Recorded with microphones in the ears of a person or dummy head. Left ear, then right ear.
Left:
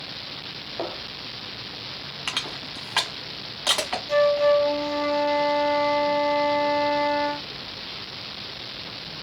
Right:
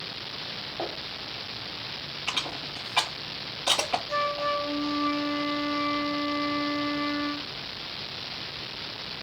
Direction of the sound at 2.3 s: 40° left (ahead or behind).